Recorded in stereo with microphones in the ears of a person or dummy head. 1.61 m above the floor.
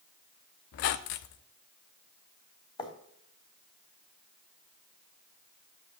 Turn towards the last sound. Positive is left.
turn(degrees=25)  # may be behind; listen again after turning